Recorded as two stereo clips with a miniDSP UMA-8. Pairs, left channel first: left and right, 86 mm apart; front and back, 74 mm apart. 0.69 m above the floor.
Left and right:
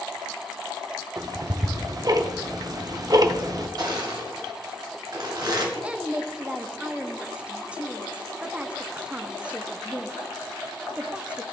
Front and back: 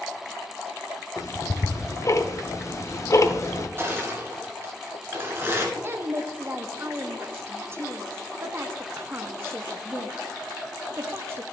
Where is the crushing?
125° right, 1.8 m.